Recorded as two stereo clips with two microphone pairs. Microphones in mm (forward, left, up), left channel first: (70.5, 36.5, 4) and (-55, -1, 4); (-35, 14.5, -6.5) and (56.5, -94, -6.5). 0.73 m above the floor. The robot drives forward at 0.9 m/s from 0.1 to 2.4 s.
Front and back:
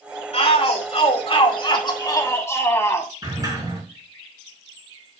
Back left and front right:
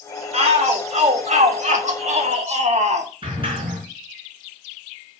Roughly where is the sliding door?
Right.